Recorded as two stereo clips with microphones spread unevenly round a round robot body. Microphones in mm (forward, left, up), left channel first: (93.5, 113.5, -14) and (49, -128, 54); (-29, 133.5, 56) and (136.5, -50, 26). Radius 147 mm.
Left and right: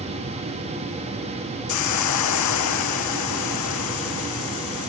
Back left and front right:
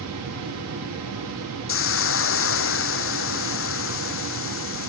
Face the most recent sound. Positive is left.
turn(degrees=100)